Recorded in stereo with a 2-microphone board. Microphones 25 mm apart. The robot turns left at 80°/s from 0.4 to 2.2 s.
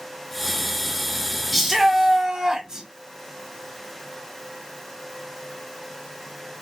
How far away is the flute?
I don't hear a flute.